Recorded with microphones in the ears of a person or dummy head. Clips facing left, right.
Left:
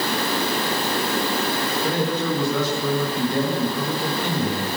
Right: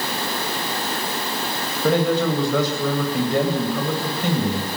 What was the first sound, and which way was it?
A man speaking, 55° right (ahead or behind).